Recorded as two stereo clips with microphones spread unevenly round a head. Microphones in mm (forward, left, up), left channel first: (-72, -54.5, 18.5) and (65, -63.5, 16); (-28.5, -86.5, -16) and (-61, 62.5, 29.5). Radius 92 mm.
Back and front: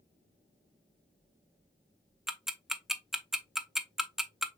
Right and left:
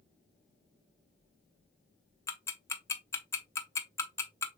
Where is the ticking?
90° right, 0.6 m.